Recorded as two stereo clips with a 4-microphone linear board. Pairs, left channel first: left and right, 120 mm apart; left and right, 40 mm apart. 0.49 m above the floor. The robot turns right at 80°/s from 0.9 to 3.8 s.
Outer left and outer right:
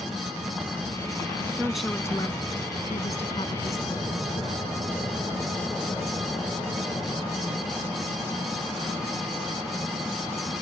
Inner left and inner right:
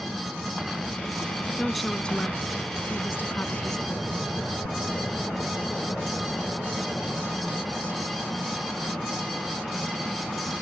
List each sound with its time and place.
1.6 s a woman speaking: 15° right; by 4.1 s 160° left